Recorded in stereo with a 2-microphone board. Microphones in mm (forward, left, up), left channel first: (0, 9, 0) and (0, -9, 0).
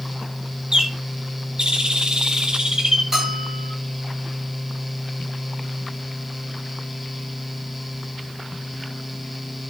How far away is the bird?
About 1.6 m.